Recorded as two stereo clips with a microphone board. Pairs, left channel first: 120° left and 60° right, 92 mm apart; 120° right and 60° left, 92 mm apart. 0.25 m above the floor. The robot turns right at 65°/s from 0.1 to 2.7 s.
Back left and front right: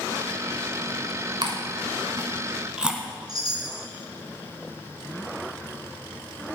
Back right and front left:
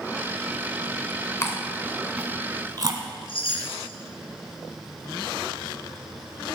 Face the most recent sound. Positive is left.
turn(degrees=-105)